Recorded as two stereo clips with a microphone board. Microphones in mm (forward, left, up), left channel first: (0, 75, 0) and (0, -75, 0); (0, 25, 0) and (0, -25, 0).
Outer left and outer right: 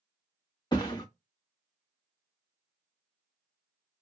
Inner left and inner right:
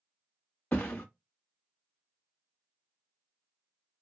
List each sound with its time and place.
0.7 s a thud: 30° left (ahead or behind), 1.0 m